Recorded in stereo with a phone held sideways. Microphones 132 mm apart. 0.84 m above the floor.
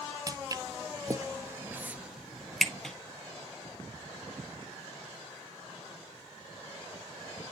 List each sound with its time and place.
0.3 s footsteps: 30° right (ahead or behind), 1.2 m; by 3.0 s 5° left (ahead or behind), 1.3 m